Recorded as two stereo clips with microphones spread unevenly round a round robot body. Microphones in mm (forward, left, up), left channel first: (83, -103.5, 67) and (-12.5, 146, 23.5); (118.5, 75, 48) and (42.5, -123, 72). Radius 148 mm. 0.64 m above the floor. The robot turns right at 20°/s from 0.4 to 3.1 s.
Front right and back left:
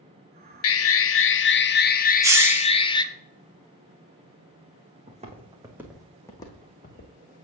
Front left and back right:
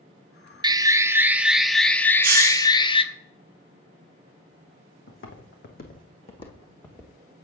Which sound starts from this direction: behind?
A hiss, at 2.2 s.